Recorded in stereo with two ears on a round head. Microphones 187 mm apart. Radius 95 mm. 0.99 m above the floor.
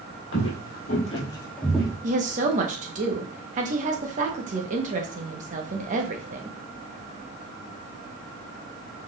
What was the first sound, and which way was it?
Footsteps, 60° left (ahead or behind).